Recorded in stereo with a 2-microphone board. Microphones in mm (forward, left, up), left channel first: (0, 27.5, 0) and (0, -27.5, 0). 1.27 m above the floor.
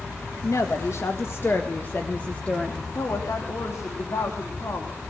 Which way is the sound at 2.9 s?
80° left.